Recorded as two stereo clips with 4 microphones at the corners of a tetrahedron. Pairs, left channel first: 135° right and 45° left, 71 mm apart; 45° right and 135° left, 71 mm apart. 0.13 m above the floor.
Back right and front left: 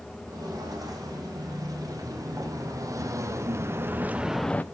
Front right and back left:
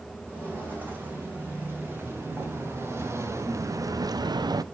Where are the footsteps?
70° left, 5 m; by 4.7 s 160° left, 0.6 m.